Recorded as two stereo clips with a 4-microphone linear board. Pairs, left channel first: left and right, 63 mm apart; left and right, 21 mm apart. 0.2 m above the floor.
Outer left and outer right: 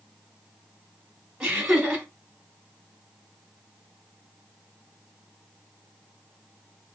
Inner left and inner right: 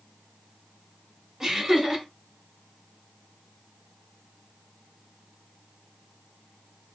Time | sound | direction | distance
1.4 | laughter | 10° right (ahead or behind) | 1.0 m